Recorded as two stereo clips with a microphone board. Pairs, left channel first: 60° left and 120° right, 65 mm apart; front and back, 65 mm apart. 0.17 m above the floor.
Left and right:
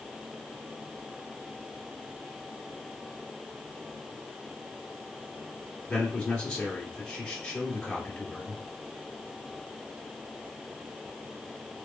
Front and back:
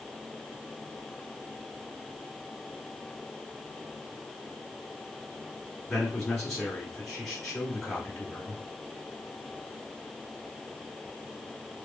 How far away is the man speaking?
About 1.5 m.